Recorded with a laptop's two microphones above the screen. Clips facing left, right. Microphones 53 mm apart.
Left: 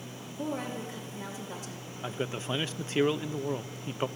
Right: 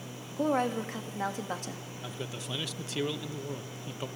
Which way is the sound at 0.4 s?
65° right (ahead or behind).